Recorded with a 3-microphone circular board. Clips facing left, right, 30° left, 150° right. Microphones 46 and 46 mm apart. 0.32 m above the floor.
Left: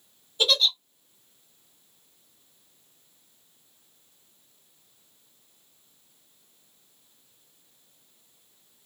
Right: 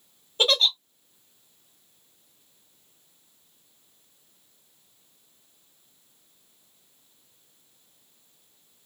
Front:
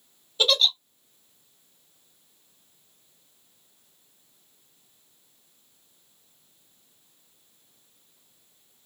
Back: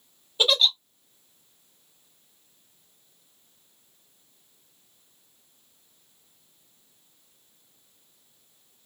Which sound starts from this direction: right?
A giggle, at 0.4 s.